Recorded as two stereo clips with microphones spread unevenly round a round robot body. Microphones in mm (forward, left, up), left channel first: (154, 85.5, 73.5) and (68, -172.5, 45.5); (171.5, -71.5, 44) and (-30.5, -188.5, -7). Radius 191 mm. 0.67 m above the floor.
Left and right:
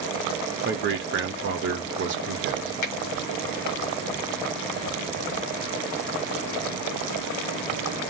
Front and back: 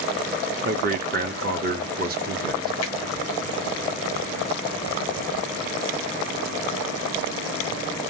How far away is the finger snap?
About 1.2 m.